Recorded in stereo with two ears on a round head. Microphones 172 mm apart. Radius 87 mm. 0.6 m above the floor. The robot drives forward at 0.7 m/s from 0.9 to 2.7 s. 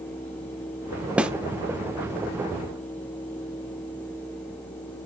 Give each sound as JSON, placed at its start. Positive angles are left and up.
{"t": 1.2, "sound": "a snare drum", "side_deg": -5, "distance_m": 0.5}